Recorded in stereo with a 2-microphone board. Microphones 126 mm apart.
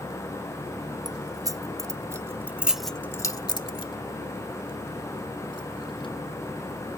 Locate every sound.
1.1 s keys jangling: 30° right (ahead or behind); by 6.1 s 40° left (ahead or behind)